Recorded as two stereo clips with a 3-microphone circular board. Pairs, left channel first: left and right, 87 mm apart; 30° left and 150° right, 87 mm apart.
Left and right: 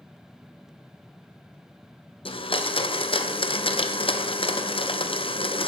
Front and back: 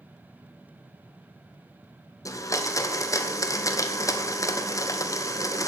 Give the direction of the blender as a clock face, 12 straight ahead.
9 o'clock.